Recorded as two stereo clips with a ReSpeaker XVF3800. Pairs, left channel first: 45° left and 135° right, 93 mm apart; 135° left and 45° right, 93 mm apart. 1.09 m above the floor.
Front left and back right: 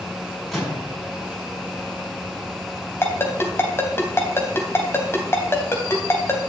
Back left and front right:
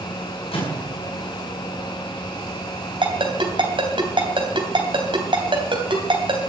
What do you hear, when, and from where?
0.5 s a microwave: 130° left, 6.5 m
3.0 s a ringtone: 20° right, 3 m